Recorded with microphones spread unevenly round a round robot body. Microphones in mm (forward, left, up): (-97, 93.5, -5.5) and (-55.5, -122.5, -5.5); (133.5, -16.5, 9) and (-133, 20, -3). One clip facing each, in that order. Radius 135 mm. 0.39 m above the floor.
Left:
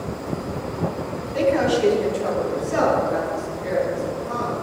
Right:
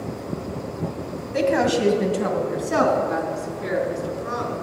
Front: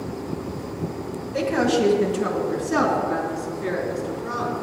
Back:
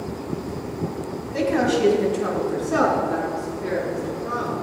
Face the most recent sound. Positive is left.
turn(degrees=-85)